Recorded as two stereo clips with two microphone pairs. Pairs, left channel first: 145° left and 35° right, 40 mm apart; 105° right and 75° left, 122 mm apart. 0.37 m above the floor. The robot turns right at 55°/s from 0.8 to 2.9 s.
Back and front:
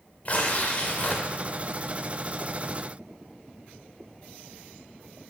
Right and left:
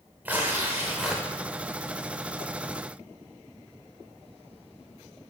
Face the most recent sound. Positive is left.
turn(degrees=-105)